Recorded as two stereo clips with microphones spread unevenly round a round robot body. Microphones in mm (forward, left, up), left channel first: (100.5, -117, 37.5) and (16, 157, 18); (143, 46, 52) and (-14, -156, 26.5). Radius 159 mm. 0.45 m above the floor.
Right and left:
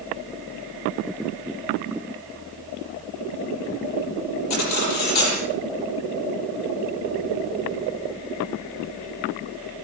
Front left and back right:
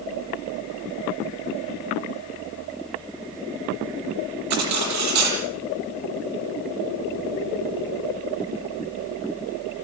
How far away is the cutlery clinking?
About 7.5 m.